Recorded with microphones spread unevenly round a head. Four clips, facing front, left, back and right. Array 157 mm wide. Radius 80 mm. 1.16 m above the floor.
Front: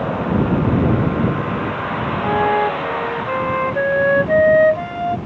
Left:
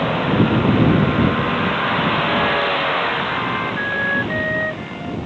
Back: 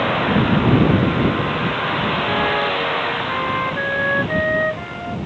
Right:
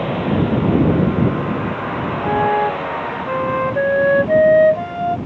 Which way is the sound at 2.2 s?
70° right.